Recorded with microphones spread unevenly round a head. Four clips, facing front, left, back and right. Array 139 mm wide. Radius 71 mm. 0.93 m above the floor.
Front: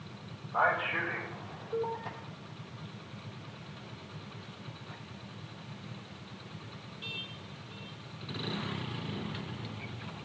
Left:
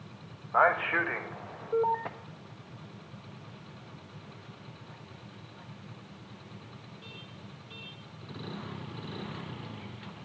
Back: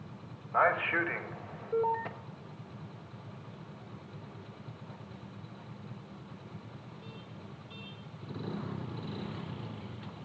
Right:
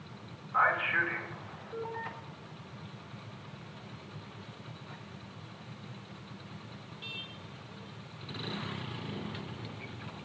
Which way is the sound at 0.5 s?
115° left.